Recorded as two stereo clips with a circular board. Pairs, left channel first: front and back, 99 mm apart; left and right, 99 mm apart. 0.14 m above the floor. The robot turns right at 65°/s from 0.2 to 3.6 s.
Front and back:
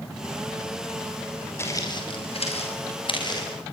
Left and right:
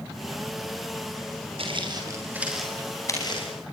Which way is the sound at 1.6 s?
65° right.